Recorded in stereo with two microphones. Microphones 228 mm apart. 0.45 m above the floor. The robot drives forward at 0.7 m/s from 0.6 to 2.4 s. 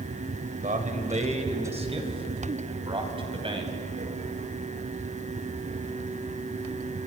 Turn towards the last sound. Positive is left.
turn(degrees=-25)  # may be behind; listen again after turning